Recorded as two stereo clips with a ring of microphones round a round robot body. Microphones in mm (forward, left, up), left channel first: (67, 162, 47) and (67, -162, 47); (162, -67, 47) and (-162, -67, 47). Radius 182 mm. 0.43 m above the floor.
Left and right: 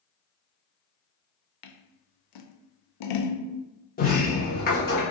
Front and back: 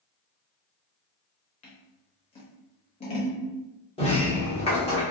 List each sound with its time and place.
1.6 s scissors: 70° left, 0.5 m
4.0 s a sliding door: 55° left, 1.0 m